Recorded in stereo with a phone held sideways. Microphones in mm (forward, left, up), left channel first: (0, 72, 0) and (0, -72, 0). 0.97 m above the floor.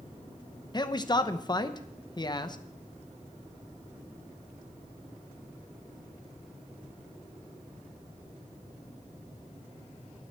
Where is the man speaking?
30° left (ahead or behind), 0.9 m.